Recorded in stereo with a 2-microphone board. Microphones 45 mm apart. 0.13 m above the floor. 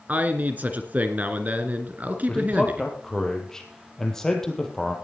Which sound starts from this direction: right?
A man speaking, at 0.1 s.